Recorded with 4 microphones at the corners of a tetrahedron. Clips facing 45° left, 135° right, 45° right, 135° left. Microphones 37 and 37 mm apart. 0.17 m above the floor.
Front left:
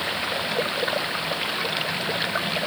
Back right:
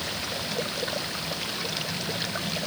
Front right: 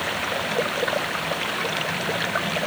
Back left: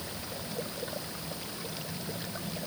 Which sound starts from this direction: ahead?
Running water, at 0.0 s.